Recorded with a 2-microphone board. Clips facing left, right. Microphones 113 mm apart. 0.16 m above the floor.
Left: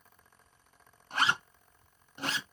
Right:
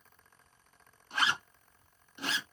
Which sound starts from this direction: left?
A zipper, at 1.1 s.